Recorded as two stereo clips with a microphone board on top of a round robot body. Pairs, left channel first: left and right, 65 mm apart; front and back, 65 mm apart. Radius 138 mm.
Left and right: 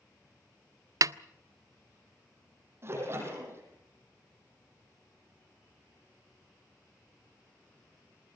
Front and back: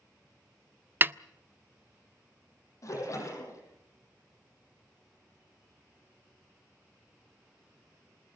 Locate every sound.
1.0 s a snare drum: 120° right, 0.5 m
2.8 s a splash: 35° right, 8 m